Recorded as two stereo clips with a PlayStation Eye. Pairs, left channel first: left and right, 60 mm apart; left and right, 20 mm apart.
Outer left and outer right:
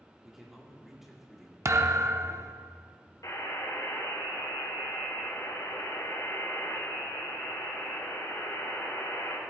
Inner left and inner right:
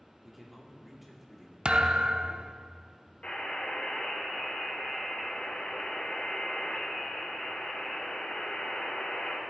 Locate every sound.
0.2 s a man speaking: 5° right (ahead or behind), 2 m
1.6 s a thud: 55° right (ahead or behind), 0.7 m
3.2 s a buzzer: 70° left (ahead or behind), 3 m